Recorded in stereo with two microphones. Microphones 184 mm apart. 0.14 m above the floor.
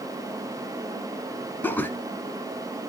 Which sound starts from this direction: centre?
Laughter, at 1.6 s.